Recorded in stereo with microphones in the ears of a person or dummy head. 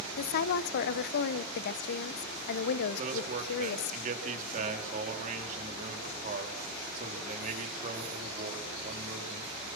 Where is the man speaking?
45° right (ahead or behind), 4 m.